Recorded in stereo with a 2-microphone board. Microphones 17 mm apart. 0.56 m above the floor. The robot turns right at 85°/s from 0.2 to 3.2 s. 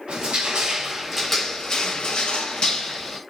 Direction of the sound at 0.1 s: 80° right.